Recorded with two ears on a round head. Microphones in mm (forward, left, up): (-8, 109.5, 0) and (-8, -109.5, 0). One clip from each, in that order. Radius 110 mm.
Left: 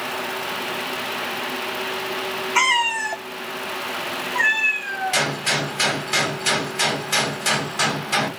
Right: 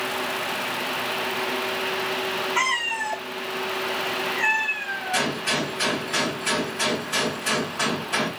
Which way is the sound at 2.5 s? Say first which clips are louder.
Left 7 dB; 60° left (ahead or behind).